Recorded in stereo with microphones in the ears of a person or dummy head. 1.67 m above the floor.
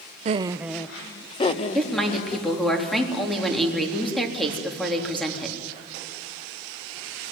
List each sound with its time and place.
0.2 s laughter: 40° right (ahead or behind), 0.7 m; by 2.5 s 45° left (ahead or behind), 2.5 m
1.8 s a woman speaking: 5° left (ahead or behind), 3.5 m